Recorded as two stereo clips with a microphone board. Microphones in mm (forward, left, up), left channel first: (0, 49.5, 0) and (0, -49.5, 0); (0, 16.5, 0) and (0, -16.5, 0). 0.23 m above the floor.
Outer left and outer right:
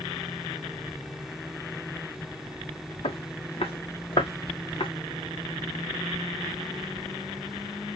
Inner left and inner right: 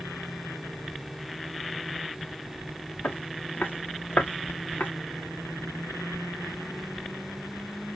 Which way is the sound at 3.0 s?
85° left.